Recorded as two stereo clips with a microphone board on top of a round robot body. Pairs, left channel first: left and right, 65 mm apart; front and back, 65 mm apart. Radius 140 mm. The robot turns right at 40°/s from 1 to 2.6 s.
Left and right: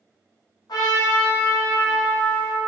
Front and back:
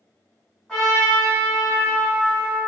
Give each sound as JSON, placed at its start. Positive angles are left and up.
{"t": 0.7, "sound": "a trumpet", "azimuth_deg": 90, "distance_m": 1.7}